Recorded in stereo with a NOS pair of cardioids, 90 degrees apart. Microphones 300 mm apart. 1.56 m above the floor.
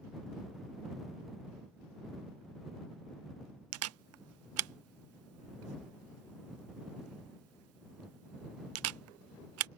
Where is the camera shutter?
60° right.